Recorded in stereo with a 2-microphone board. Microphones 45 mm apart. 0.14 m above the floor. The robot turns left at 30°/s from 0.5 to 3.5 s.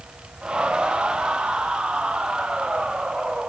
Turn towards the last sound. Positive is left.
No sound to turn to.